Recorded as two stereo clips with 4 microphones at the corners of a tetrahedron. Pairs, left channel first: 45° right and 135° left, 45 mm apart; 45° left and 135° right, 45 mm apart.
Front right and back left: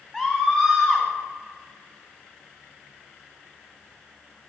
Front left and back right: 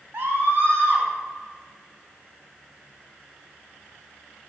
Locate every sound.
0.1 s a scream: 145° right, 2.5 m